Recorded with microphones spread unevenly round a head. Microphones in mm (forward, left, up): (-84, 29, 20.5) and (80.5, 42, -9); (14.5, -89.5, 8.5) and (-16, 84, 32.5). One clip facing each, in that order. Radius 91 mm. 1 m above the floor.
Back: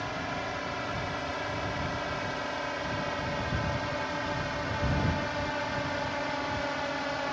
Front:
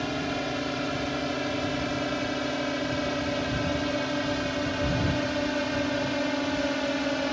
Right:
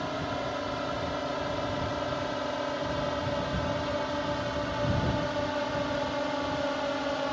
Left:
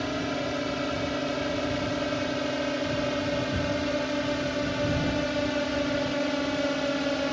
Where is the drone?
45° left.